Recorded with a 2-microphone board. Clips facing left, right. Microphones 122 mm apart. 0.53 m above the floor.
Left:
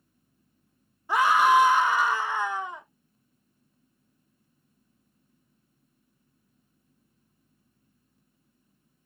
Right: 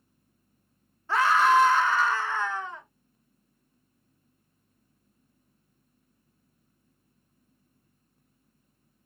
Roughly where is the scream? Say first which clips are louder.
Left 1 dB; centre.